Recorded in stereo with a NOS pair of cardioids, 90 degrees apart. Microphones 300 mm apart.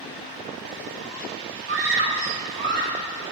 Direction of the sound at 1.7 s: 45° right.